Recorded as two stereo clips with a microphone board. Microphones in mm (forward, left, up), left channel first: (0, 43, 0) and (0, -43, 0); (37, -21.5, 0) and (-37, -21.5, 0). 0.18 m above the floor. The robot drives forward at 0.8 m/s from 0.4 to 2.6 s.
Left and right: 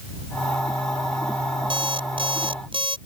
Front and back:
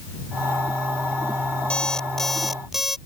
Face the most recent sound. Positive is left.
turn(degrees=-95)